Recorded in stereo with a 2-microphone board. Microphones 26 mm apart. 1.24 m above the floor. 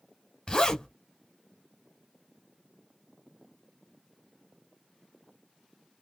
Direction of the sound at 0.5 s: 30° left (ahead or behind).